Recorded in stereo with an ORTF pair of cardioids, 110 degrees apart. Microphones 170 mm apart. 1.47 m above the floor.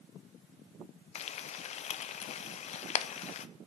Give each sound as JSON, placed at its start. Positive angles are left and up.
{"t": 1.1, "sound": "frying", "azimuth_deg": 45, "distance_m": 0.5}